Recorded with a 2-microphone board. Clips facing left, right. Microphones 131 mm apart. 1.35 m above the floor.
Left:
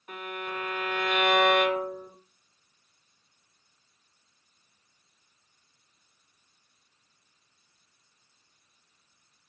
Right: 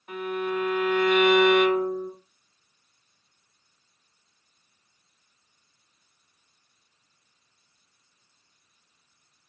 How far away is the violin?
About 1.4 m.